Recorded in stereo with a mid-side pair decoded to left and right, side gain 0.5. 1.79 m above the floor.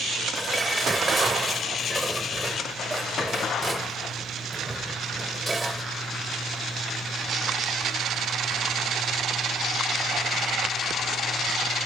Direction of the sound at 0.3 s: 10° right.